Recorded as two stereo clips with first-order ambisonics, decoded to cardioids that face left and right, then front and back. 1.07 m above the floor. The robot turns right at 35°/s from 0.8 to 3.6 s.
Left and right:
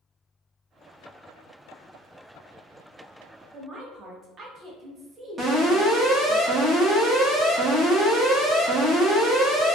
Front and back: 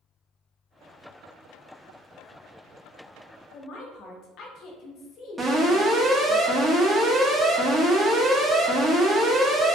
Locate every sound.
3.5 s a woman speaking: 35° right, 0.8 m; by 6.4 s 30° right, 0.8 m
5.4 s an alarm: 125° right, 0.9 m